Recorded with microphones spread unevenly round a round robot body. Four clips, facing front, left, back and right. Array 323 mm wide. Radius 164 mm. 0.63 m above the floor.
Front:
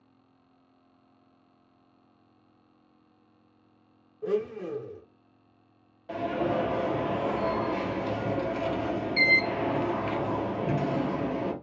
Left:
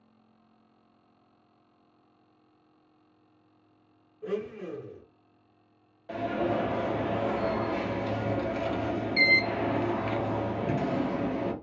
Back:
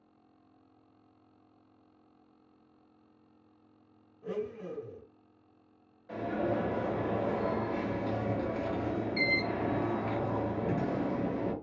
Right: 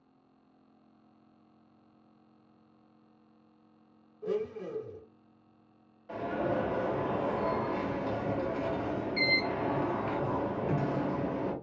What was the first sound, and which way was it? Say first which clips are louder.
A blender: even, front 8 dB; 10° left.